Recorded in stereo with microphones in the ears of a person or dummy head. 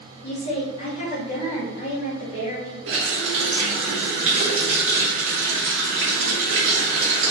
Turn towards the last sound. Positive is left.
turn(degrees=-75)  # may be behind; listen again after turning